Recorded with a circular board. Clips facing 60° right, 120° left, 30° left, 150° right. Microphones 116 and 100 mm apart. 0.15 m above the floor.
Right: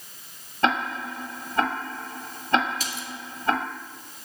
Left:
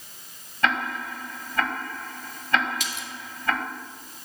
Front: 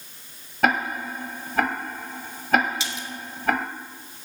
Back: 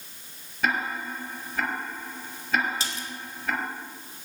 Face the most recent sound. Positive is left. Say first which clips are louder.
# right 1 dB, front 2 dB
turn(degrees=-110)